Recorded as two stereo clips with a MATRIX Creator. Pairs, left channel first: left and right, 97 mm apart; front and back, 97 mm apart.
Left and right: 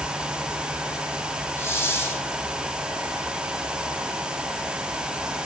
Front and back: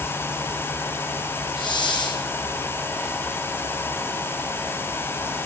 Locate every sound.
1.6 s a hiss: 30° left, 2.5 m